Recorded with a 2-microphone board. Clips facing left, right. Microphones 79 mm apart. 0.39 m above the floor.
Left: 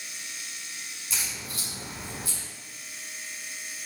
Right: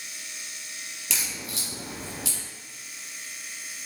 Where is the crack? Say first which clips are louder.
Right 2 dB; 75° right (ahead or behind), 3 m.